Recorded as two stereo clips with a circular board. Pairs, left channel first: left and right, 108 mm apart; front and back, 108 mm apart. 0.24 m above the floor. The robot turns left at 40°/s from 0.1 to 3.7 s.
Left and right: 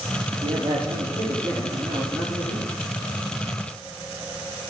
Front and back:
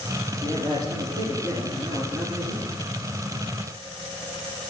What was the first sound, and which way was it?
A man speaking, 100° right.